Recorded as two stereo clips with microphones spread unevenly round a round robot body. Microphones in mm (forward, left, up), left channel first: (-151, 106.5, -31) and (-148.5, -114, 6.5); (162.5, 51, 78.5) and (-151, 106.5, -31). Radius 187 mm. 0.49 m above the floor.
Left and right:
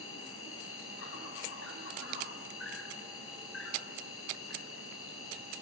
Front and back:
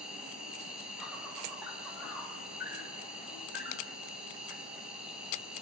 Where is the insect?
90° left, 6 m.